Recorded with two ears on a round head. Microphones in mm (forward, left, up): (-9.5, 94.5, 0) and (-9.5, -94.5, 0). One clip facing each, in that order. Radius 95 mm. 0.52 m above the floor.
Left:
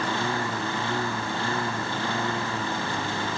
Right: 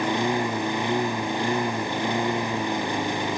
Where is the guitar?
No guitar in this recording.